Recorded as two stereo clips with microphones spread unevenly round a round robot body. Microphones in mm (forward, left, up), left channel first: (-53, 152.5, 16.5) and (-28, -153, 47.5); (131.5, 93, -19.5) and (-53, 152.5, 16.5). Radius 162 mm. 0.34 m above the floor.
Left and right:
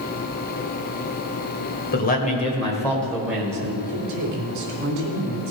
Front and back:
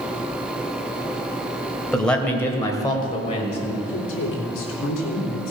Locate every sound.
1.9 s a man speaking: 60° left, 1.9 m; by 3.7 s 10° right, 2.0 m
3.8 s a woman speaking: 35° right, 3 m